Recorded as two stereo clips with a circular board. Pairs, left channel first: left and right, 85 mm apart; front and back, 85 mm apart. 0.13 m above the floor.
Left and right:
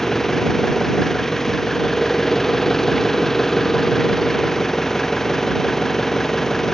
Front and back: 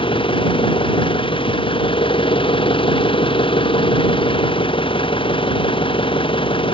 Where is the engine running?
5° left.